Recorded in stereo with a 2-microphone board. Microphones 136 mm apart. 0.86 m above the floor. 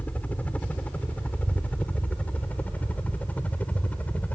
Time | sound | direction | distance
0.0 | a helicopter | 10° left (ahead or behind) | ?